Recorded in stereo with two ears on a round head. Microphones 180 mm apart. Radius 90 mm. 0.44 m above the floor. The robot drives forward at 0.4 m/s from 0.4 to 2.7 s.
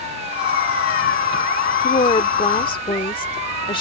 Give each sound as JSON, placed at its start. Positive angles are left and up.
{"t": 1.8, "sound": "a woman speaking", "side_deg": 30}